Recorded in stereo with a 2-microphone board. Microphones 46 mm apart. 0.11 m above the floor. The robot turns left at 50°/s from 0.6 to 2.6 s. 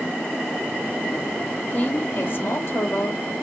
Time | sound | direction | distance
1.7 | a woman speaking | 155° left | 2.5 m